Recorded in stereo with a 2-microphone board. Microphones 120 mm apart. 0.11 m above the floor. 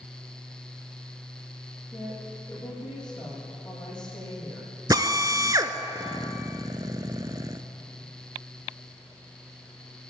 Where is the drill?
30° right (ahead or behind), 0.6 m.